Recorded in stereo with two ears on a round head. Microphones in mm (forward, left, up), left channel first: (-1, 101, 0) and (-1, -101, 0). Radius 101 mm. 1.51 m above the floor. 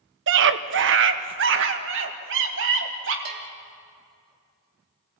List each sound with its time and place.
0.3 s a scream: 55° right (ahead or behind), 1.0 m; by 3.1 s 60° right (ahead or behind), 3 m
3.2 s a bell: 45° right (ahead or behind), 2.5 m